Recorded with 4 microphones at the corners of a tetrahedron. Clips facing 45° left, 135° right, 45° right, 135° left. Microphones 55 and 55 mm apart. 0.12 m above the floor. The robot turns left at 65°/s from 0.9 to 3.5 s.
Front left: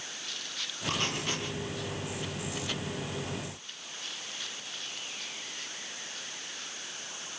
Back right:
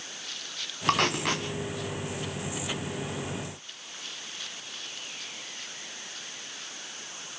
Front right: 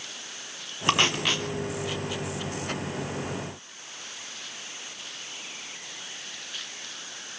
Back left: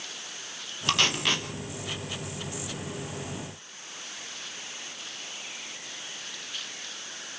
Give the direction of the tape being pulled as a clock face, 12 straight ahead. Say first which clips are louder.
Back right 8 dB, front right 2 dB; 4 o'clock.